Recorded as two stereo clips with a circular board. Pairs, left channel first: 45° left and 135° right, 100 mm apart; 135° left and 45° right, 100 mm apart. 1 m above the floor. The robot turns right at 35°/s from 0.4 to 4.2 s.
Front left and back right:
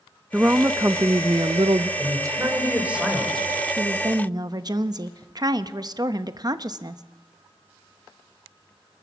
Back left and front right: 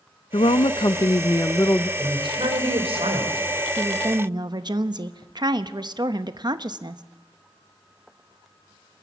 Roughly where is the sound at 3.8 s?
Right.